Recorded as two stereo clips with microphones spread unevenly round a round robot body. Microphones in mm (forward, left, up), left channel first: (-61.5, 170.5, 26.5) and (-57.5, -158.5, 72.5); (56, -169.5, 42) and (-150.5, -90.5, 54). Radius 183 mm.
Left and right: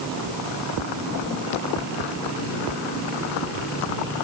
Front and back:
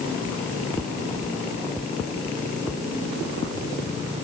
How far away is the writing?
I don't hear writing.